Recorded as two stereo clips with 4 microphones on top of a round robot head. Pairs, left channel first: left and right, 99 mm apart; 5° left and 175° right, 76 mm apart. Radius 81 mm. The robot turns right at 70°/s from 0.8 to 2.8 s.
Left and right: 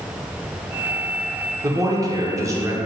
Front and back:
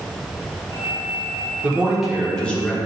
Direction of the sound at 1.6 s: 120° right.